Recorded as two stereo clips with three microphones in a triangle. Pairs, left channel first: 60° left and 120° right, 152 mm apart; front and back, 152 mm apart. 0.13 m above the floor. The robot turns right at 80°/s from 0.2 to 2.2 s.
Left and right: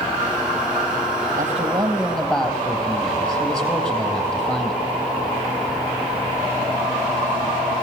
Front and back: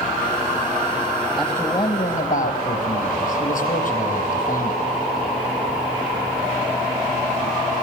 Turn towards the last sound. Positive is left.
turn(degrees=-25)